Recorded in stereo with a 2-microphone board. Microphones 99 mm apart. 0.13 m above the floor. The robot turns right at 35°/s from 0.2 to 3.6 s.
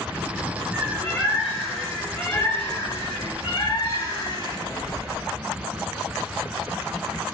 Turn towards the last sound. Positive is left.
turn(degrees=65)